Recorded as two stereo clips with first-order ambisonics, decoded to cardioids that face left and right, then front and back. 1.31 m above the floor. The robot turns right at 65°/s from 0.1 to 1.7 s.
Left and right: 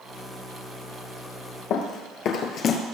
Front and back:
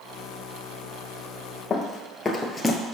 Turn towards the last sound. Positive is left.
turn(degrees=85)